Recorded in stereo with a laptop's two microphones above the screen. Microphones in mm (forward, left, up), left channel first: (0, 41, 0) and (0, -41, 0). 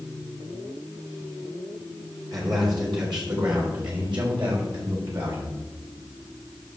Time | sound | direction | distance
2.3 | a man speaking | 50° right (ahead or behind) | 3.5 m